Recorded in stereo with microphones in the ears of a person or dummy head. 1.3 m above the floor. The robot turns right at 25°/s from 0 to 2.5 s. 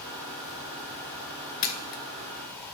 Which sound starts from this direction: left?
A camera shutter, at 1.6 s.